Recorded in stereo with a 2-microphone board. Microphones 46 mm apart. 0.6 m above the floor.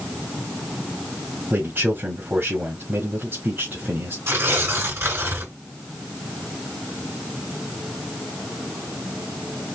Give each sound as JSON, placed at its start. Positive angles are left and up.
{"t": 1.5, "sound": "a man speaking", "side_deg": -50, "distance_m": 1.6}
{"t": 4.3, "sound": "tearing paper", "side_deg": -65, "distance_m": 2.5}